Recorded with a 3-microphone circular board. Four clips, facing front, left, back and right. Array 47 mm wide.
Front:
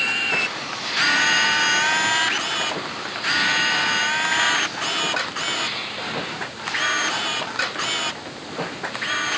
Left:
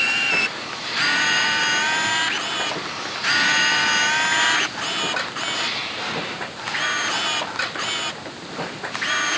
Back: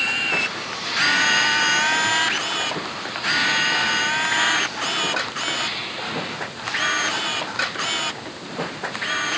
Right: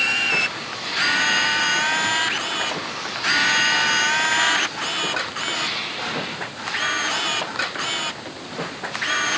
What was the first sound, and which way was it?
Only background noise.